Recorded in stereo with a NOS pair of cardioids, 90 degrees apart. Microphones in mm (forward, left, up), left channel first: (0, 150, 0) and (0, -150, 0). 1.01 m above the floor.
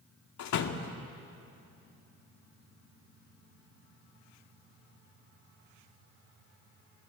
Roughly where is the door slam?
Ahead left.